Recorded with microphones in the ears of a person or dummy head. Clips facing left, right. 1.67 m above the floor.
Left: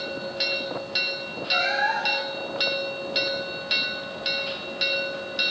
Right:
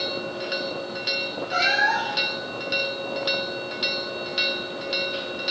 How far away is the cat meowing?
About 1.2 m.